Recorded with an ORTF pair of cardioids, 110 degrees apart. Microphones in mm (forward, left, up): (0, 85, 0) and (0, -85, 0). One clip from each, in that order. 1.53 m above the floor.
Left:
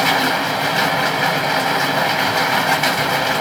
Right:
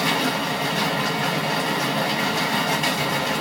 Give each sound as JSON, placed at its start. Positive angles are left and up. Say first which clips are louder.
{"t": 0.0, "sound": "a machine running", "louder": "left 6 dB", "azimuth_deg": 40, "distance_m": 1.0}